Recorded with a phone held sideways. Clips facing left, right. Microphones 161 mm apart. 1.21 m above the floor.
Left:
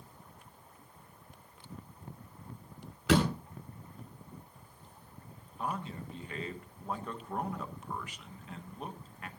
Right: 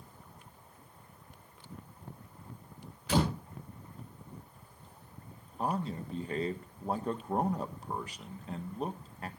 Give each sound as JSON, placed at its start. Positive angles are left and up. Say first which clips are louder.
{"t": 3.1, "sound": "a door slam", "louder": "left 3 dB", "side_deg": 80, "distance_m": 9.5}
{"t": 5.6, "sound": "a man speaking", "louder": "right 4 dB", "side_deg": -35, "distance_m": 1.3}